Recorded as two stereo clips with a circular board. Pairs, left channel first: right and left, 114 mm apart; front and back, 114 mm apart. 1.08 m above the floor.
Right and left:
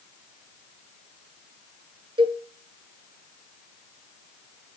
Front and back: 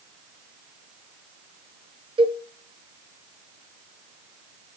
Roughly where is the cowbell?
Behind left.